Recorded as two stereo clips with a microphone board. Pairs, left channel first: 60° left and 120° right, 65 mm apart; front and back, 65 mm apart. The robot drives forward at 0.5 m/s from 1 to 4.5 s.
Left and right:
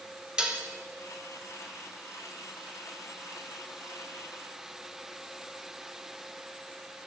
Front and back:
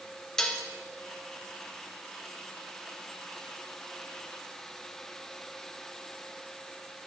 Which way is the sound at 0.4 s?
65° right.